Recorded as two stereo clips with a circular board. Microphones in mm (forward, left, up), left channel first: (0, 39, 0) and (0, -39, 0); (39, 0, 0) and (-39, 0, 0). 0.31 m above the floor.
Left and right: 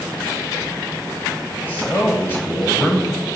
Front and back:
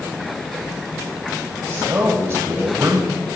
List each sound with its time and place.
1.7 s a man speaking: 145° left, 1.5 m